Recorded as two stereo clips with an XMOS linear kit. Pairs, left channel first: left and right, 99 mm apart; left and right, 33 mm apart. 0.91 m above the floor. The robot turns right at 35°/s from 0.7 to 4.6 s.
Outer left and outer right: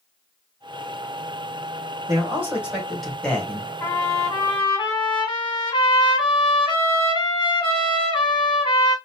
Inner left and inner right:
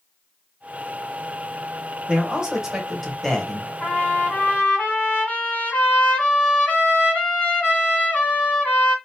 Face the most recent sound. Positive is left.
turn(degrees=45)  # may be behind; listen again after turning